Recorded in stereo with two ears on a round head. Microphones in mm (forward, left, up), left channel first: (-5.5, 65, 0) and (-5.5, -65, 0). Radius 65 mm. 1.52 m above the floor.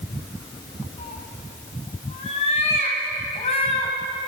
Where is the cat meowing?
45° left (ahead or behind), 3.5 m.